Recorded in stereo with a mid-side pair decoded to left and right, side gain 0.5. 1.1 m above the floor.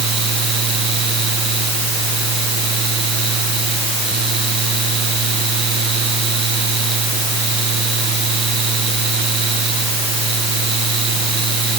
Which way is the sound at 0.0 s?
50° right.